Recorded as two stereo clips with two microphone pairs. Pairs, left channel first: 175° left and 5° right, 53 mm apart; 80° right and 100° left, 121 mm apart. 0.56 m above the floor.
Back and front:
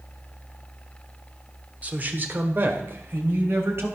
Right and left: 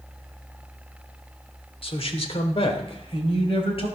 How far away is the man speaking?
About 1.2 m.